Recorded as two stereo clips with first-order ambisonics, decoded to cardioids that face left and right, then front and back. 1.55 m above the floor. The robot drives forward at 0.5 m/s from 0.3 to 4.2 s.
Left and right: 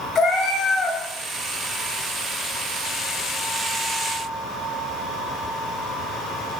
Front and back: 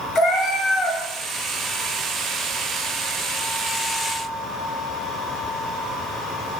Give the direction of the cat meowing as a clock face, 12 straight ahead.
11 o'clock.